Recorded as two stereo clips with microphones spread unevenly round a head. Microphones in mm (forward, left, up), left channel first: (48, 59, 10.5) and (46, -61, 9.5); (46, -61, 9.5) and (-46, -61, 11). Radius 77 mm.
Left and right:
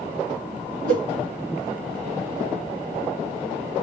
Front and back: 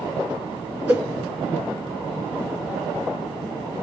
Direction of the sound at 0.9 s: 105° right.